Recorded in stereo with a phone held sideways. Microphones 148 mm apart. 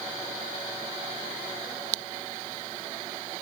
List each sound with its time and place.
Only background noise.